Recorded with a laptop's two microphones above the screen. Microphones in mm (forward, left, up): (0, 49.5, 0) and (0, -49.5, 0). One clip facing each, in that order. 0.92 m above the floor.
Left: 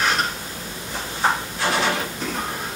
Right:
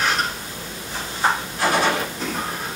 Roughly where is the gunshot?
Right.